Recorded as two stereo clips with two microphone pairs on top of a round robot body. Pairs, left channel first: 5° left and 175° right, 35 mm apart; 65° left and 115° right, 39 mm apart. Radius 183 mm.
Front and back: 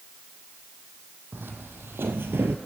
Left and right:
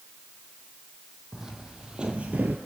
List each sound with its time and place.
1.3 s footsteps: 165° left, 1.5 m; by 2.6 s 160° right, 0.6 m